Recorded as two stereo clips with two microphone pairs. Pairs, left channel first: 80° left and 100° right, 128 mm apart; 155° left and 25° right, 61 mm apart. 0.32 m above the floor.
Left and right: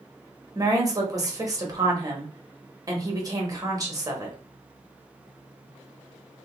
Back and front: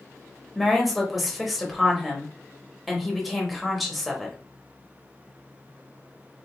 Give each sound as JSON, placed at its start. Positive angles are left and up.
{"t": 0.6, "sound": "a woman speaking", "azimuth_deg": -115, "distance_m": 1.0}